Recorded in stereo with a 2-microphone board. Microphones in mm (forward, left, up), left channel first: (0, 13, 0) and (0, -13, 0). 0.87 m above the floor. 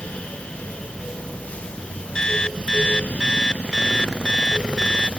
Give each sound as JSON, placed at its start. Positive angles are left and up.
{"t": 2.1, "sound": "an alarm clock", "side_deg": 30}